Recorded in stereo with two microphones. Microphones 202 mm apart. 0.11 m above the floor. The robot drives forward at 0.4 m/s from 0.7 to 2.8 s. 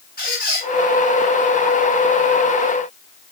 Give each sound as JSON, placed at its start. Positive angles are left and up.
{"t": 0.2, "sound": "a squeak", "side_deg": 50, "distance_m": 7.0}